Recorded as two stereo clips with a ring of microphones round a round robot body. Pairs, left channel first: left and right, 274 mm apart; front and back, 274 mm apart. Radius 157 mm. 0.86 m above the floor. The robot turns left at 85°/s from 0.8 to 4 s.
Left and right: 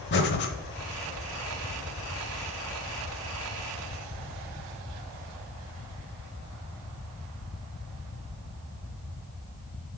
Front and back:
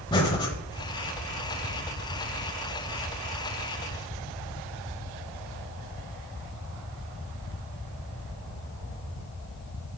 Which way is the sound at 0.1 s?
70° left.